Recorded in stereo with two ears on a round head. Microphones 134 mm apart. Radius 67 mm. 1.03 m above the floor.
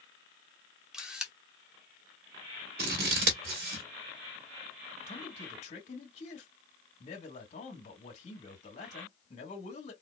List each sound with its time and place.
0.9 s a camera shutter: 5° right (ahead or behind), 0.9 m
2.8 s scissors: 70° right (ahead or behind), 1.5 m
5.1 s a man speaking: 50° left (ahead or behind), 2 m